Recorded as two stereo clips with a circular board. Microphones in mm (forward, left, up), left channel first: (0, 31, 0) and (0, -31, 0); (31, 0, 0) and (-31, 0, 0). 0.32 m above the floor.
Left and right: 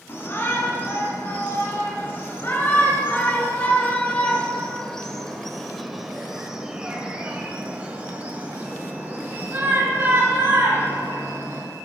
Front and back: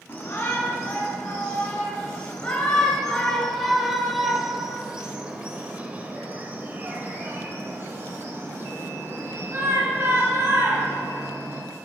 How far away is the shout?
About 3 m.